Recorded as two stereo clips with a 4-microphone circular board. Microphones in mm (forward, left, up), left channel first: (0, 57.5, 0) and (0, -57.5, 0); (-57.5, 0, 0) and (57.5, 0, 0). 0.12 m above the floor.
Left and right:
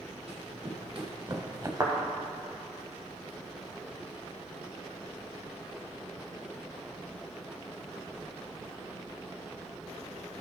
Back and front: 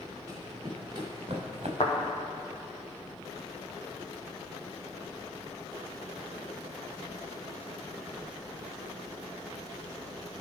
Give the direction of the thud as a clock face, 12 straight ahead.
5 o'clock.